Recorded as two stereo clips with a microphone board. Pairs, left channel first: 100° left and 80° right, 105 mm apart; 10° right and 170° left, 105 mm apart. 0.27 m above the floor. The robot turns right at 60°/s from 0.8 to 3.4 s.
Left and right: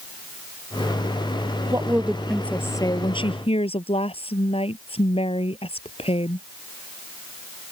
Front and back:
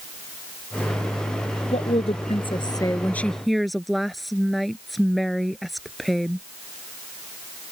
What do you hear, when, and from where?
1.7 s a woman speaking: 20° right; by 6.5 s 80° left